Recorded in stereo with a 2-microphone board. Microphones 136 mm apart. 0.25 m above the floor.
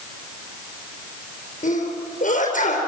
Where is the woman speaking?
I don't hear a woman speaking.